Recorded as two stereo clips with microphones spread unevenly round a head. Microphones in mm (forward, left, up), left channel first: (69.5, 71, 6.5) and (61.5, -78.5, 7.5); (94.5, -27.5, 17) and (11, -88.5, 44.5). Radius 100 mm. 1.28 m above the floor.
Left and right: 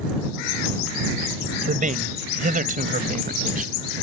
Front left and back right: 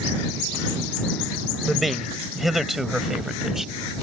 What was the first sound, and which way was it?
A man speaking, 55° right.